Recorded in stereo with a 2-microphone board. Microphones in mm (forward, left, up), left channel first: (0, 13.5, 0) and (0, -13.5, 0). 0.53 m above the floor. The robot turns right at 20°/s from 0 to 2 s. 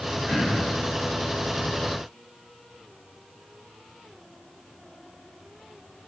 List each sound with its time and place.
0.3 s throat clearing: 30° left (ahead or behind), 0.9 m; by 0.7 s 20° left (ahead or behind), 0.9 m